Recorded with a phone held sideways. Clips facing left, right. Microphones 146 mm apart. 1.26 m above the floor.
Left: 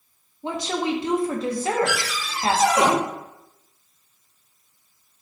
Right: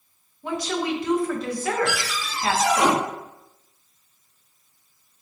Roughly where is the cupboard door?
Left.